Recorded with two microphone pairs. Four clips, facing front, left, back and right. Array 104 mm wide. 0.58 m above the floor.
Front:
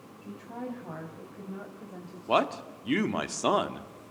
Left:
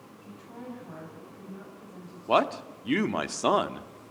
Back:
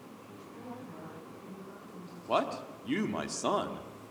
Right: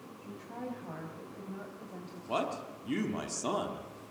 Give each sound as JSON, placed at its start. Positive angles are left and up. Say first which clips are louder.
{"t": 0.2, "sound": "a woman speaking", "louder": "right 1 dB, front 10 dB", "azimuth_deg": -15, "distance_m": 5.0}
{"t": 2.3, "sound": "a man speaking", "louder": "left 9 dB, front 4 dB", "azimuth_deg": 65, "distance_m": 1.3}